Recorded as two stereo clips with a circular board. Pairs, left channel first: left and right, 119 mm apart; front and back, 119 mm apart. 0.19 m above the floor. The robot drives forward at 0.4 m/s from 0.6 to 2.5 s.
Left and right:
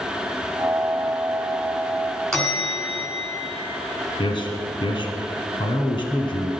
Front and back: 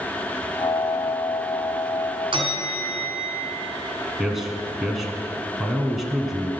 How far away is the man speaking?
About 1.4 m.